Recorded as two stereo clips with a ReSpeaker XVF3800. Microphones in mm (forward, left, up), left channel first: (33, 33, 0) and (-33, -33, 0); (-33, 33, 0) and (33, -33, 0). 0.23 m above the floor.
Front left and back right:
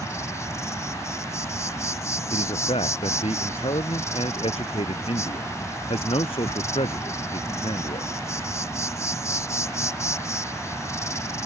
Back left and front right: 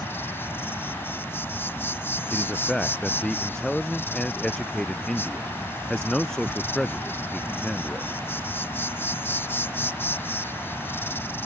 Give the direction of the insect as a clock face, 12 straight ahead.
9 o'clock.